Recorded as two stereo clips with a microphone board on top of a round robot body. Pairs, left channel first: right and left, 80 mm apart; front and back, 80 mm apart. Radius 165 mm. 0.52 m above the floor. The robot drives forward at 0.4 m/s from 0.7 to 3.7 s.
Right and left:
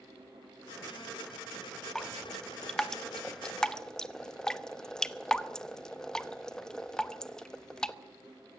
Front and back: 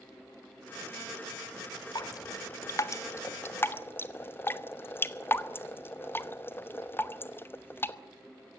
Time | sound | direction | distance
1.9 | dripping | 10° right | 1.8 m